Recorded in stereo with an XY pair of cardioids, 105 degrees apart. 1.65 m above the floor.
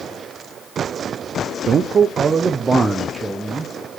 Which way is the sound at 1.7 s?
50° right.